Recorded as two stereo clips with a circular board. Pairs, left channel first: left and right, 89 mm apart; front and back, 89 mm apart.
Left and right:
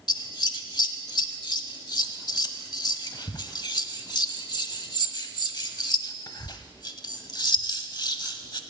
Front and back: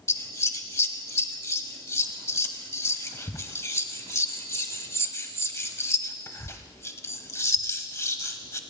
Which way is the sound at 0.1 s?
55° left.